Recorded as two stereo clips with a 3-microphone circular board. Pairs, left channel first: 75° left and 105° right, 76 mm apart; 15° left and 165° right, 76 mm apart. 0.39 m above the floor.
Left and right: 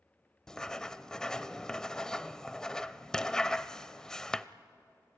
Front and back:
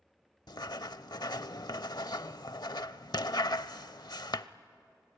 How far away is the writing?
About 0.5 m.